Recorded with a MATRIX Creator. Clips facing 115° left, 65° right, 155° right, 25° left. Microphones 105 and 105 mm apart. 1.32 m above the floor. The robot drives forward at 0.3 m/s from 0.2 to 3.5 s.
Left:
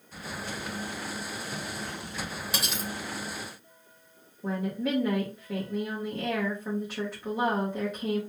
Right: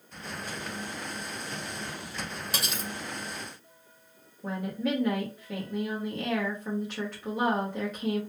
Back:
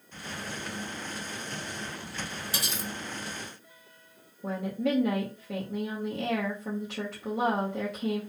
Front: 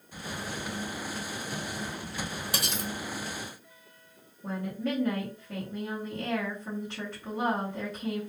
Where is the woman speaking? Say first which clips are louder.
Left 1 dB, back 3 dB; 165° right, 0.9 m.